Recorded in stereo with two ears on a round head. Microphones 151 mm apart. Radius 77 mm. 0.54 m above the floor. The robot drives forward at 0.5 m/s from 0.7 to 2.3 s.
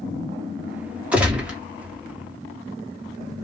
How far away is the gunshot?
About 0.8 m.